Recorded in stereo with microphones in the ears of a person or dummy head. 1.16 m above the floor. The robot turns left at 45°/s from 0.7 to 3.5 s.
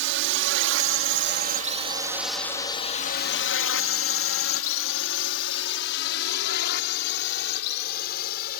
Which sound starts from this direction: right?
A drone, at 0.0 s.